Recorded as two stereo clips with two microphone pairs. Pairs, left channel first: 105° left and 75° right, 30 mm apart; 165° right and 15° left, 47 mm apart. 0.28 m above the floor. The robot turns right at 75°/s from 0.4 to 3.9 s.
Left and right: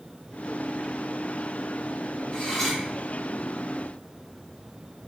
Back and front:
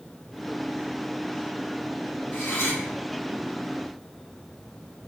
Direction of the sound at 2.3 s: 155° left.